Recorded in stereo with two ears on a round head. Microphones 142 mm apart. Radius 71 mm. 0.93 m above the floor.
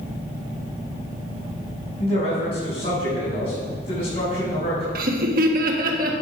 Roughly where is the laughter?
Right.